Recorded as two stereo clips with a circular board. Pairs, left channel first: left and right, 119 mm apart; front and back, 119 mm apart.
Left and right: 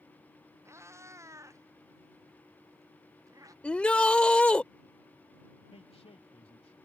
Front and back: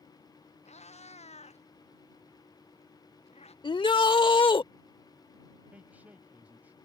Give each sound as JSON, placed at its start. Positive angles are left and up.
{"t": 0.7, "sound": "a cat meowing", "azimuth_deg": -25}
{"t": 3.6, "sound": "a shout", "azimuth_deg": 15}
{"t": 5.7, "sound": "a man speaking", "azimuth_deg": 105}